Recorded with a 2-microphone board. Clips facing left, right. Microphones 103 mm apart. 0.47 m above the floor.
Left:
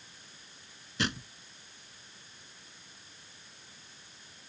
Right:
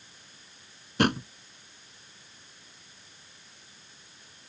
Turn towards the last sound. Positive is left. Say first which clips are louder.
# right 10 dB
turn(degrees=-55)  # may be behind; listen again after turning